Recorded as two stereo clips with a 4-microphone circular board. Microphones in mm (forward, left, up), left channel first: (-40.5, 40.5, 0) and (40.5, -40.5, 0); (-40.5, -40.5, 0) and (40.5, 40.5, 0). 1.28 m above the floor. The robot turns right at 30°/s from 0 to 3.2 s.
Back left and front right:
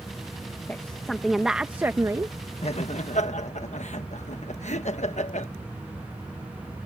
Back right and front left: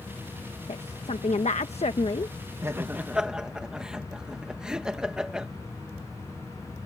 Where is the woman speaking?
150° right; by 2.4 s 100° right.